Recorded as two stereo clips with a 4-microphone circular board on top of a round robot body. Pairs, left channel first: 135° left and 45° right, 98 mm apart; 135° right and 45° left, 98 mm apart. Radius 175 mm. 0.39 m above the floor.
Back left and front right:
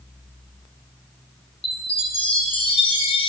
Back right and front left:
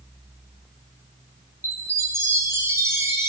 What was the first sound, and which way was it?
A chime, 110° left.